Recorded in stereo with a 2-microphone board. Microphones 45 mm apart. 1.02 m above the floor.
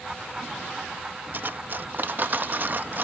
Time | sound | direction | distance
1.3 | cutlery clinking | 45° right (ahead or behind) | ?